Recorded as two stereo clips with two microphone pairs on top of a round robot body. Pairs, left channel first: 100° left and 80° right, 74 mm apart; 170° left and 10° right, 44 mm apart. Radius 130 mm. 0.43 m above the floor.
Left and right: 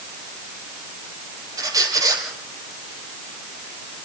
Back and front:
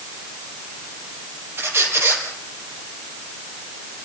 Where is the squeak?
40° right, 3.5 m.